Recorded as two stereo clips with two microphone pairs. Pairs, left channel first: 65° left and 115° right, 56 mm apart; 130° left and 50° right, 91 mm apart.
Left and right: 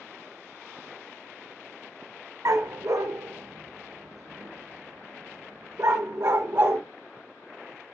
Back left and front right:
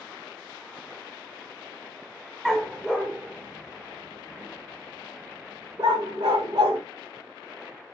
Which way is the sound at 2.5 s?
135° right.